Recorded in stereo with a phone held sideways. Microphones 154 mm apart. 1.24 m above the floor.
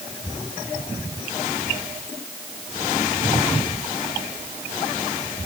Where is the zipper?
No zipper in this recording.